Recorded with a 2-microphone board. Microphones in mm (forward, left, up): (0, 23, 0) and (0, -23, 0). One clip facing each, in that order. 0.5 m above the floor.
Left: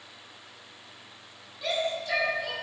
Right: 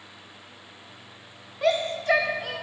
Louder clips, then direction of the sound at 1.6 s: Right 6 dB; 50° right (ahead or behind).